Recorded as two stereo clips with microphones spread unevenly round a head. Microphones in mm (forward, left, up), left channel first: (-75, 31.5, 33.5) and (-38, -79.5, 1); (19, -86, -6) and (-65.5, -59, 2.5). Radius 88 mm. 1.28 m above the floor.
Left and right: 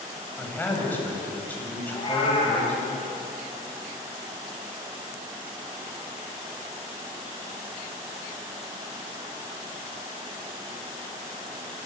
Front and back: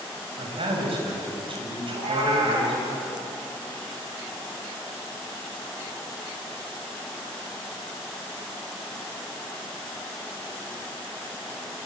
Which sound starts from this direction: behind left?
A cat meowing, at 1.9 s.